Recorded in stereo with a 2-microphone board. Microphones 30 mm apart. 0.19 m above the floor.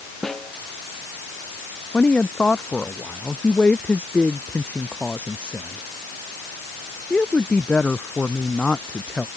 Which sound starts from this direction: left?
A woman speaking, at 1.9 s.